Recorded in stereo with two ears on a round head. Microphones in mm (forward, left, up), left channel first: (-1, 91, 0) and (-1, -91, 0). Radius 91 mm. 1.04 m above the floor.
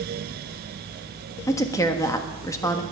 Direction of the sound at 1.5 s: 15° left (ahead or behind).